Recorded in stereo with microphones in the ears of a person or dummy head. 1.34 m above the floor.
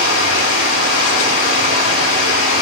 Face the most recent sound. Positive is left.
turn(degrees=75)  # may be behind; listen again after turning